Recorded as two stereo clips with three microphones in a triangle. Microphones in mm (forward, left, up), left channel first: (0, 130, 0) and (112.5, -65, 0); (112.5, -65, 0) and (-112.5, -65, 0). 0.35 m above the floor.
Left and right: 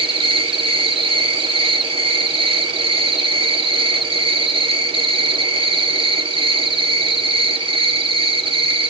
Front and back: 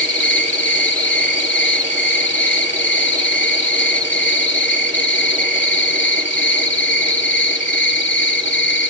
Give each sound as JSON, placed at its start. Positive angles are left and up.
{"t": 0.0, "sound": "an insect", "azimuth_deg": 5, "distance_m": 1.6}